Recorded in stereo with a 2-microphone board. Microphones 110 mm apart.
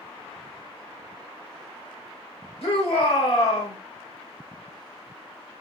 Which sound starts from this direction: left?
A shout, at 2.6 s.